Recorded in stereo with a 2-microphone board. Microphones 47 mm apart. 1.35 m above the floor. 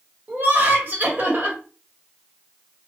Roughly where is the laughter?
Right.